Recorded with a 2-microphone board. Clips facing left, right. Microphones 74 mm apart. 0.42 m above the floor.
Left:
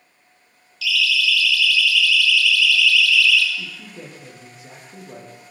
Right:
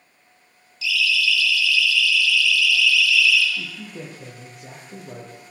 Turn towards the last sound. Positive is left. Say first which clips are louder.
# right 1 dB
turn(degrees=-65)  # may be behind; listen again after turning